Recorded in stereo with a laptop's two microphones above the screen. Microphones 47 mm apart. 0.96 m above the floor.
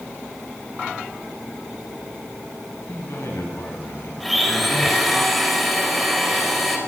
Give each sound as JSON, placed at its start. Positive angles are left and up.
{"t": 2.9, "sound": "a man speaking", "side_deg": 65, "distance_m": 9.5}
{"t": 4.2, "sound": "a blender", "side_deg": 0, "distance_m": 5.5}